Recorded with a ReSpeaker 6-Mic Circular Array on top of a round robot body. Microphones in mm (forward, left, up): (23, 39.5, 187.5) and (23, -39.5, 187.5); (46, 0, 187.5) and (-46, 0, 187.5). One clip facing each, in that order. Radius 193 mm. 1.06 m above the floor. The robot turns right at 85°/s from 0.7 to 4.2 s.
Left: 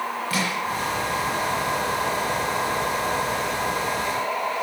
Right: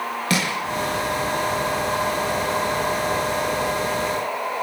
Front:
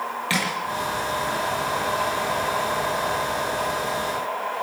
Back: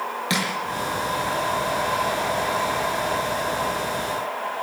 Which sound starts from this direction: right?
Crushing, at 0.3 s.